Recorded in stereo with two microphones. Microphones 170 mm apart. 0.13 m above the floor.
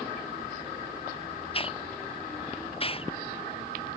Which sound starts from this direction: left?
A hiss, at 1.5 s.